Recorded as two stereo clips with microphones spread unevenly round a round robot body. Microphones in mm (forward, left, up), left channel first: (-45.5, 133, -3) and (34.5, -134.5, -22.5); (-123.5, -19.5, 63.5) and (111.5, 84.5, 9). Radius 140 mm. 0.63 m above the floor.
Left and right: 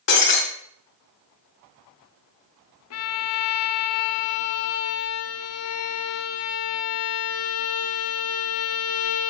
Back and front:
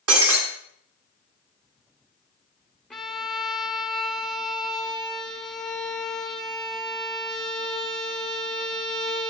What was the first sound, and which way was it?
Breaking glass, 55° left.